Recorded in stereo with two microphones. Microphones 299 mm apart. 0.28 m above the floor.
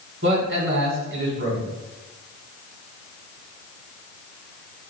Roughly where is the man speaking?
Right.